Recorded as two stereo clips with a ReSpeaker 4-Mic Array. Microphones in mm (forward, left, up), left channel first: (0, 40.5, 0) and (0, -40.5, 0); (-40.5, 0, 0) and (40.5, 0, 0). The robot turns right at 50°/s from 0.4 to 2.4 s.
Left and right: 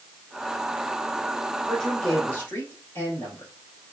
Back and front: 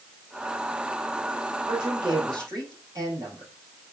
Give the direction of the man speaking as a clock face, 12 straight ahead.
12 o'clock.